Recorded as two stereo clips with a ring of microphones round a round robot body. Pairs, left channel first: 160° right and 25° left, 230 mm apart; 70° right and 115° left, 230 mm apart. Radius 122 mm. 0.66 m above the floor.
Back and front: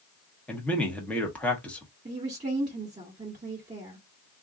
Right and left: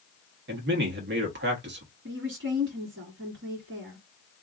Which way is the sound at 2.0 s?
95° left.